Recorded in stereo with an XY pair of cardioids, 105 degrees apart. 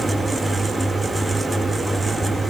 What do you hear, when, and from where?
0.0 s a fan: 20° right, 2 m